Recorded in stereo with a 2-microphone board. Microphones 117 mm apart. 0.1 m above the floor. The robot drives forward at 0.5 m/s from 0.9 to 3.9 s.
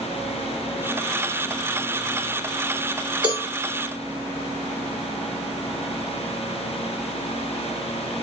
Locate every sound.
3.2 s a cowbell: 40° right (ahead or behind), 2 m